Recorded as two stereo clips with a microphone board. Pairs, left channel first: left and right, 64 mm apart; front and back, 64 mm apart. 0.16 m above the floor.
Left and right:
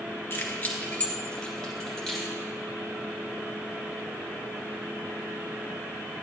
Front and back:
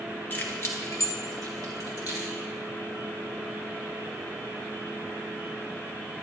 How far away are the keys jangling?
About 1.4 m.